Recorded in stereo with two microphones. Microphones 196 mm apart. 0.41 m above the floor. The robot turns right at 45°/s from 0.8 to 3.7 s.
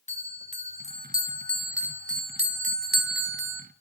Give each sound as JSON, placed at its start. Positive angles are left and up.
{"t": 0.1, "sound": "a bell", "azimuth_deg": 145, "distance_m": 0.6}